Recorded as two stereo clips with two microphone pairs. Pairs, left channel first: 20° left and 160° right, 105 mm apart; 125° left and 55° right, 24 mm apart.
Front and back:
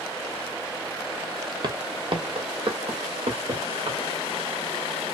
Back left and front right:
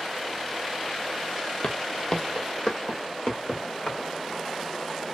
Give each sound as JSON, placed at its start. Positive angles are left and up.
{"t": 1.6, "sound": "footsteps", "azimuth_deg": 160, "distance_m": 0.7}